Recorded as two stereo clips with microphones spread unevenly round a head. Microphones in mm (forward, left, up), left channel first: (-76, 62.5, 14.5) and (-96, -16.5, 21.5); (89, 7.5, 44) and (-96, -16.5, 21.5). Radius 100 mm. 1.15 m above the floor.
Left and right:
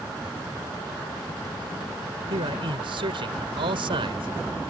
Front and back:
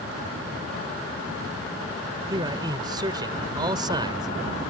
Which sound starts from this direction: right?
A man speaking, at 2.3 s.